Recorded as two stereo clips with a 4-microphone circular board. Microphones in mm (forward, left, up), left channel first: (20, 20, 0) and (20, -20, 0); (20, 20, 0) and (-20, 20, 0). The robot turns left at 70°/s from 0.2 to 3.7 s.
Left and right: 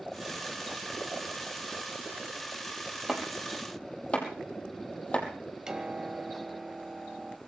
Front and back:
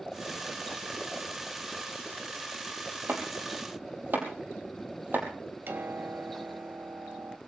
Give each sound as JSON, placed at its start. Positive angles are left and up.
{"t": 3.1, "sound": "chopping", "azimuth_deg": -165, "distance_m": 4.0}
{"t": 5.7, "sound": "a piano", "azimuth_deg": -160, "distance_m": 1.6}